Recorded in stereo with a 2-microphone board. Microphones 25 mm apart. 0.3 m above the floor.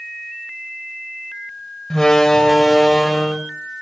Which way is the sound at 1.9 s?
25° left (ahead or behind).